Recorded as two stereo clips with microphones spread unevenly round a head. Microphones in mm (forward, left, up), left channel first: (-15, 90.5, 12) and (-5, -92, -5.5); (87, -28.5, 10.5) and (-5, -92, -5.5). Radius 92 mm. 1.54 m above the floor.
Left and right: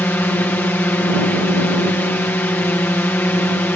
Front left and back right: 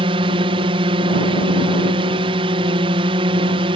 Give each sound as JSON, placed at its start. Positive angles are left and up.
{"t": 0.0, "sound": "a drone", "azimuth_deg": 175}